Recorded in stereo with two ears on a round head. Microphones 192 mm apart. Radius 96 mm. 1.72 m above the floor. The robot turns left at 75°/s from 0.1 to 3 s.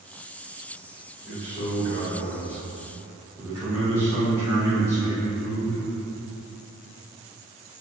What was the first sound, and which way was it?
A man speaking, 20° right.